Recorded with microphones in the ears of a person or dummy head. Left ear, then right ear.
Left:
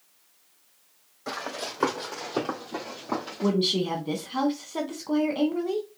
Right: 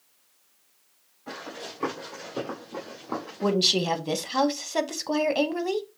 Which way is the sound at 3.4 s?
45° right (ahead or behind).